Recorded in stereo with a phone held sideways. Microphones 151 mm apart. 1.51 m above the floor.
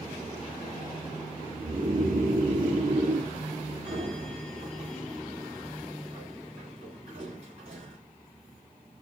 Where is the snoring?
70° right (ahead or behind), 2 m.